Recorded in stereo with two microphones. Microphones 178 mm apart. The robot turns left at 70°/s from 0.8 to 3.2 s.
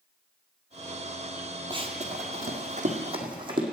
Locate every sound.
1.7 s running footsteps: 25° right (ahead or behind), 1.3 m; by 3.6 s 30° right (ahead or behind), 2.5 m